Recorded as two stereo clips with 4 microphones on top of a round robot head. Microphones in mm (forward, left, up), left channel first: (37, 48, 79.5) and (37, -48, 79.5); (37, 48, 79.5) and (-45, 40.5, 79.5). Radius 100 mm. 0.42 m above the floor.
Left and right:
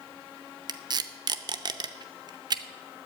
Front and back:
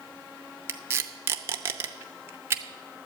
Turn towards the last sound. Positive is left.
turn(degrees=-120)